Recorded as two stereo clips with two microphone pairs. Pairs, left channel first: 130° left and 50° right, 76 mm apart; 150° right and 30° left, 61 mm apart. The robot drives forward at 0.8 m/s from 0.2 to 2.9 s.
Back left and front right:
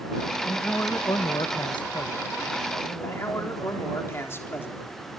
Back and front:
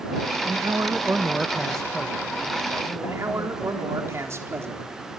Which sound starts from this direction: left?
A man speaking, at 3.0 s.